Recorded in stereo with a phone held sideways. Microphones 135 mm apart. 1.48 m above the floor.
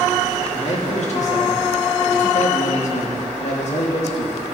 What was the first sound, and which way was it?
A man speaking, 60° left (ahead or behind).